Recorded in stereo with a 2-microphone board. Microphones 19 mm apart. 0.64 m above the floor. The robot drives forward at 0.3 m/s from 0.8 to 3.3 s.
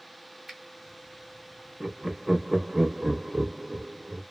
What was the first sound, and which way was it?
A finger snap, 5° right (ahead or behind).